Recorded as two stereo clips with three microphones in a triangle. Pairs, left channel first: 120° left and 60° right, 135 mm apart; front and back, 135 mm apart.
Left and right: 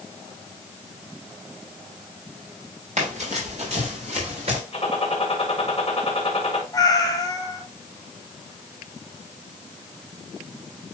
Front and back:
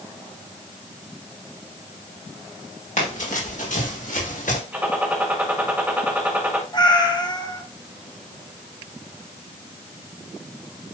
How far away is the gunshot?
About 2 m.